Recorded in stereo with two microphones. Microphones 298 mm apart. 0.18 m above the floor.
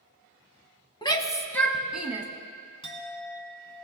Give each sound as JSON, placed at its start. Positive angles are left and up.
{"t": 1.0, "sound": "a shout", "side_deg": 15, "distance_m": 1.0}
{"t": 2.8, "sound": "a clink", "side_deg": 15, "distance_m": 1.3}